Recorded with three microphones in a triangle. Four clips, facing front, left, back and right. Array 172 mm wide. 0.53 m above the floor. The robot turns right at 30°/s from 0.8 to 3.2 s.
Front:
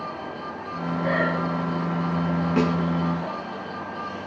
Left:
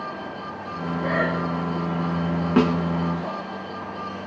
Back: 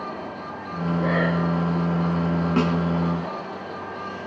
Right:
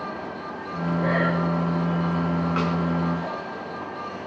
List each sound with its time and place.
1.0 s breathing: 160° right, 8.5 m; by 1.4 s 150° right, 8.5 m
2.6 s a snare drum: 100° left, 1.5 m; by 2.8 s 105° left, 1.5 m